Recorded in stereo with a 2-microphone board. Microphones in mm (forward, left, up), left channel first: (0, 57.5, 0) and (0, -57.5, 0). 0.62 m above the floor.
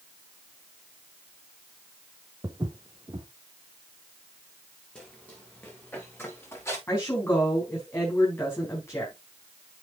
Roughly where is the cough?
No cough in this recording.